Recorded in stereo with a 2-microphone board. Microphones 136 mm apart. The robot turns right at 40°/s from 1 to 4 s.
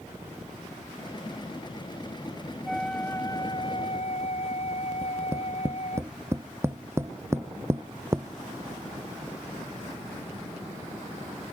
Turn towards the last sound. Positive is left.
turn(degrees=-20)  # may be behind; listen again after turning